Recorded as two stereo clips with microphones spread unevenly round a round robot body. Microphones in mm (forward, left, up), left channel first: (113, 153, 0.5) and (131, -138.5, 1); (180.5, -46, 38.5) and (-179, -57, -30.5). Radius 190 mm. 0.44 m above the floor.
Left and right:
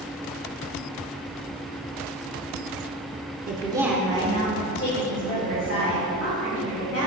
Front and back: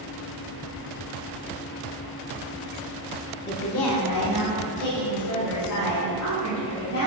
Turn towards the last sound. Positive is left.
turn(degrees=55)